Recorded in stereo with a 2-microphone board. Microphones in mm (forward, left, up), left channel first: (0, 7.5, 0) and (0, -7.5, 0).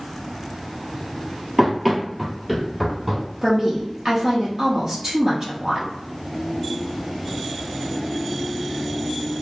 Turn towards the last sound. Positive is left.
turn(degrees=-35)  # may be behind; listen again after turning